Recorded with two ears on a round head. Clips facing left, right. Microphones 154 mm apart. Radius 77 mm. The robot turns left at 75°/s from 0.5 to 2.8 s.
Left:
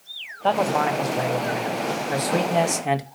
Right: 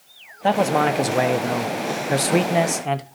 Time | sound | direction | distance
0.4 | a man speaking | 15° right | 0.9 m